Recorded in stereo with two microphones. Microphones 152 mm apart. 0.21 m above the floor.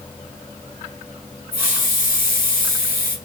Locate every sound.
1.5 s a hiss: 75° left (ahead or behind), 1.2 m